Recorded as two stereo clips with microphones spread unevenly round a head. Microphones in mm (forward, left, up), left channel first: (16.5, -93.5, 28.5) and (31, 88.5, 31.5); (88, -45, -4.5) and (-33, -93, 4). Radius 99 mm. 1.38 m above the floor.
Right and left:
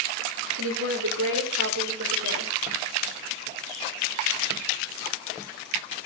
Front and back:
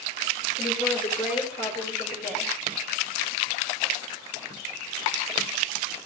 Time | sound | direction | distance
0.6 | a woman speaking | 95° left | 4.5 m